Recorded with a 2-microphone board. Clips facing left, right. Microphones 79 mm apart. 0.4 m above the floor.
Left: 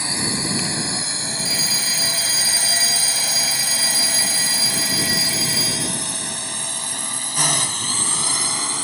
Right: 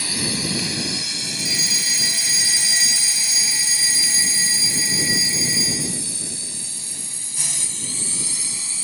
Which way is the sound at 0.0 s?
25° left (ahead or behind).